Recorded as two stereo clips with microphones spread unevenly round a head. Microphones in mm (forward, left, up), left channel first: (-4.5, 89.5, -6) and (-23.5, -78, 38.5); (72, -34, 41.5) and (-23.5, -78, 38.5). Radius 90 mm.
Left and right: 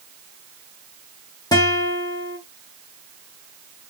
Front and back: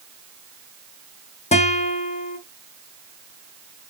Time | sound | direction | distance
1.5 | a guitar | 10° left | 0.6 m